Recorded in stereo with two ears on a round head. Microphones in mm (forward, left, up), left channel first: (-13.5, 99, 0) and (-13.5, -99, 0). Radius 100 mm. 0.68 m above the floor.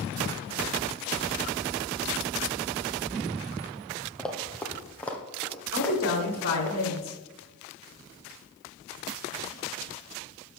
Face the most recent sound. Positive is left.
turn(degrees=70)  # may be behind; listen again after turning